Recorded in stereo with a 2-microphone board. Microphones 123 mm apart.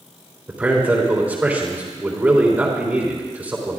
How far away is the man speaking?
About 3 m.